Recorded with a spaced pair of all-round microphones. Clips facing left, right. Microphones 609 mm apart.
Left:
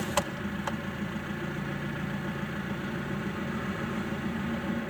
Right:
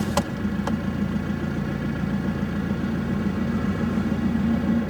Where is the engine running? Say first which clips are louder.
Right 8 dB; 65° right (ahead or behind), 0.8 m.